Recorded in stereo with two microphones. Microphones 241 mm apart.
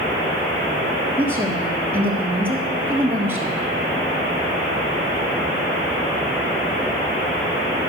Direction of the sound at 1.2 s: 10° right (ahead or behind).